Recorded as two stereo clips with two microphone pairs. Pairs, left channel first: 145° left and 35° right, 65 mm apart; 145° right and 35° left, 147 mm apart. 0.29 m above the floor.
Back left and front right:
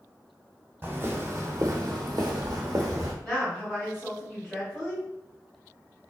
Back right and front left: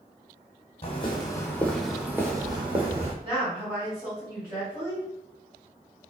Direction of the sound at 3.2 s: 70° left.